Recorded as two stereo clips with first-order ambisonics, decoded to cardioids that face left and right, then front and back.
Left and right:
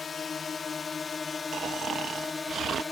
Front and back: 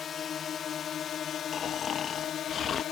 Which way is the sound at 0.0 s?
35° left.